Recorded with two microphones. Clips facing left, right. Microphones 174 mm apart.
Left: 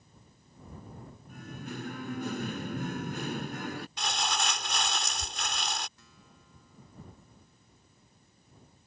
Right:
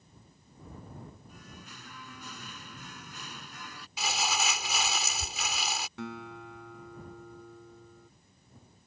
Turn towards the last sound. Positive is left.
turn(degrees=-80)